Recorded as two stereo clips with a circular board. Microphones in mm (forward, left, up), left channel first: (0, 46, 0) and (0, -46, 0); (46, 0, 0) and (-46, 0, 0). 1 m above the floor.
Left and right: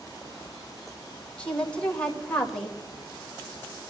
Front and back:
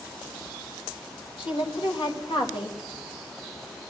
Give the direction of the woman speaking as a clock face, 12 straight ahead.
12 o'clock.